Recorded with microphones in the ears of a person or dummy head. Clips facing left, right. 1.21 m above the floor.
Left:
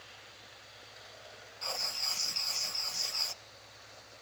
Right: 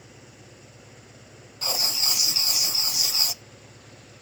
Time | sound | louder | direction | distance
0.0 | an engine running | right 8 dB | 55° right (ahead or behind) | ?
1.6 | writing | right 9 dB | 65° right (ahead or behind) | ?